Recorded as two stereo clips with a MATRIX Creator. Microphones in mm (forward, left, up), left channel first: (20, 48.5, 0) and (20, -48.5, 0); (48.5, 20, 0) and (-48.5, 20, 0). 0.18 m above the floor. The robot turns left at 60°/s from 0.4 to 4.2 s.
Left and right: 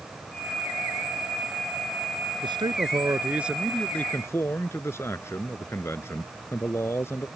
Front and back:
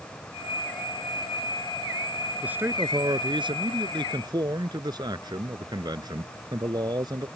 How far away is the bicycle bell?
No bicycle bell in this recording.